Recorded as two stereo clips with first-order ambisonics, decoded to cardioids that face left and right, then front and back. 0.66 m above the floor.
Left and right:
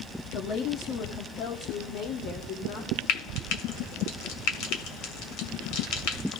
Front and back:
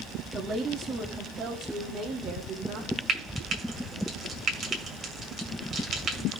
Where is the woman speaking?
120° left, 1.2 m; by 3.0 s 110° left, 2.5 m.